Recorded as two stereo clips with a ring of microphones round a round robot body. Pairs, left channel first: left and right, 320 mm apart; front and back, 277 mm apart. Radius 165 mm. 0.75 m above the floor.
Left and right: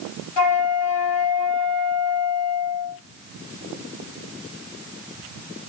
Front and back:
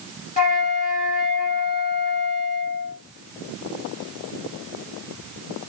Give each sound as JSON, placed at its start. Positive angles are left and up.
{"t": 0.4, "sound": "a flute", "azimuth_deg": 65, "distance_m": 5.5}